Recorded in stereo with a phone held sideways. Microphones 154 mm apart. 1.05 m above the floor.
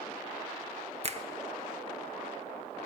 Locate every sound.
1.0 s a finger snap: 45° right (ahead or behind), 0.9 m